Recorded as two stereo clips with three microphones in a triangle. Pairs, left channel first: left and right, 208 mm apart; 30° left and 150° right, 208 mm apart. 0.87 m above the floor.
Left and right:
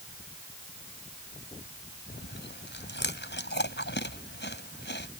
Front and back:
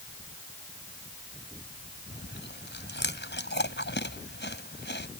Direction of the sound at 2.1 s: 60° left.